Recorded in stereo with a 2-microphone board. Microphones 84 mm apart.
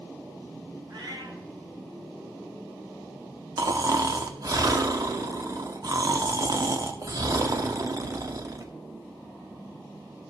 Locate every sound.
0.9 s a cat meowing: 65° right (ahead or behind), 3 m
3.6 s snoring: 45° right (ahead or behind), 1.2 m